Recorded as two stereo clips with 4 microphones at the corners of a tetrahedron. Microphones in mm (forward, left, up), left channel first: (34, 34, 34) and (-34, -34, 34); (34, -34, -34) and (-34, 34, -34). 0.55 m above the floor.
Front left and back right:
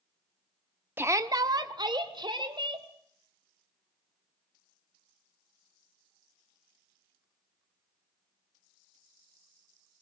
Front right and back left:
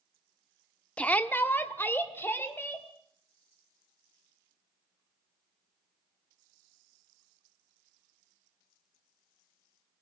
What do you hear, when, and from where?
1.0 s a shout: 105° right, 0.9 m; by 2.9 s 110° right, 3 m